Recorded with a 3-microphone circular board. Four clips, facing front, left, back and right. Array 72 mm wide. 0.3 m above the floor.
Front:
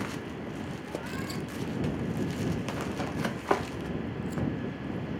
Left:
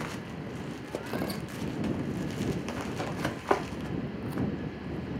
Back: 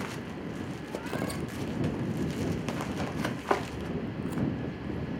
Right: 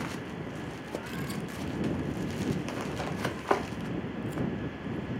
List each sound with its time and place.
1.1 s tearing paper: 130° left